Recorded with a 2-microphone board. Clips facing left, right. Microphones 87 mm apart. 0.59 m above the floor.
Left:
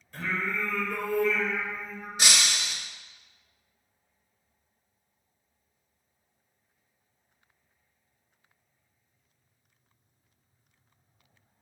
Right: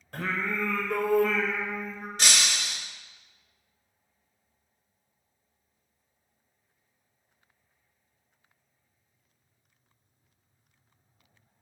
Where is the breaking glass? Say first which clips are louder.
Left 1 dB; 5° left (ahead or behind), 1.0 m.